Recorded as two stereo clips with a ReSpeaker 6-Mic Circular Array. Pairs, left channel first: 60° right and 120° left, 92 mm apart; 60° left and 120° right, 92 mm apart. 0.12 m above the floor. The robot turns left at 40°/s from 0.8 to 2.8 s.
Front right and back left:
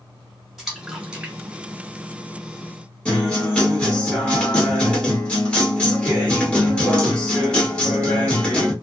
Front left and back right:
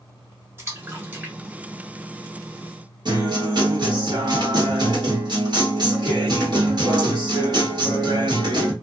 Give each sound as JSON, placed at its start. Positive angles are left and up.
{"t": 0.6, "sound": "a splash", "azimuth_deg": -150, "distance_m": 1.1}
{"t": 3.0, "sound": "a guitar", "azimuth_deg": -135, "distance_m": 1.4}